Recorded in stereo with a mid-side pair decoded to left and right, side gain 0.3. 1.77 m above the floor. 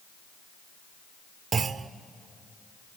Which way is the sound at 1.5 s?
65° right.